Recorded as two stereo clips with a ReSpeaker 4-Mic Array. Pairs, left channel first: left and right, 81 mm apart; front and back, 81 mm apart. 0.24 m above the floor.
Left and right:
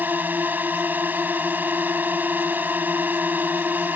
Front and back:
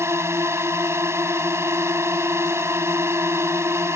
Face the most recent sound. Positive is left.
turn(degrees=-145)